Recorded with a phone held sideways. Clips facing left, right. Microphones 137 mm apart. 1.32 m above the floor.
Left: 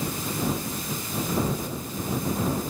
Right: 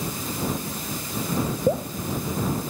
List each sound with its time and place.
1.7 s dripping: 70° right (ahead or behind)